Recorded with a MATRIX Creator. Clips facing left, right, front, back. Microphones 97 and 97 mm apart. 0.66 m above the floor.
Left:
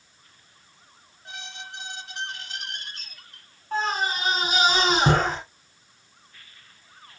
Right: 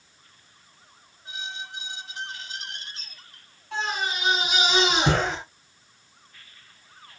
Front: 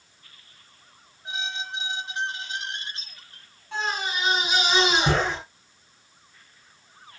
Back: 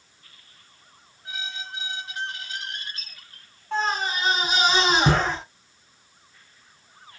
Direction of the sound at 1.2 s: 65° left.